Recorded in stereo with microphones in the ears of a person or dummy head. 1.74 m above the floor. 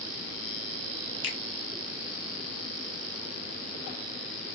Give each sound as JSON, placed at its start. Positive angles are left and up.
{"t": 1.2, "sound": "a finger snap", "side_deg": 75, "distance_m": 1.0}